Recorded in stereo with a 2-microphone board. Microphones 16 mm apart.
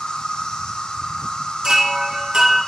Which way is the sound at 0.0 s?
65° left (ahead or behind).